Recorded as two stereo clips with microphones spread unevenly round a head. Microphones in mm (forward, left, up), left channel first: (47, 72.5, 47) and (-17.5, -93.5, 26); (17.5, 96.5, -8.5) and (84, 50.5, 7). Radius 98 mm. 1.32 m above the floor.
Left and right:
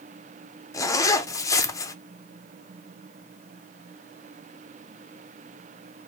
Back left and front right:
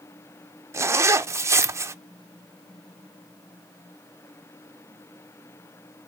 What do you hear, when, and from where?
0.7 s a zipper: 5° left, 0.5 m